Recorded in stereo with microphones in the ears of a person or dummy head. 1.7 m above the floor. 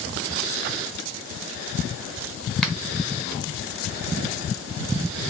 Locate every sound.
2.6 s a finger snap: 5° left (ahead or behind), 0.9 m